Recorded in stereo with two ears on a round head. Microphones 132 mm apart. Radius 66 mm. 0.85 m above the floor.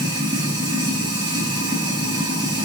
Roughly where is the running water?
Right.